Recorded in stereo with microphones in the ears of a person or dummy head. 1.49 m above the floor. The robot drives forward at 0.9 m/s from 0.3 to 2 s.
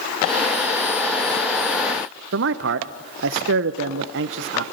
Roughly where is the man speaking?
Right.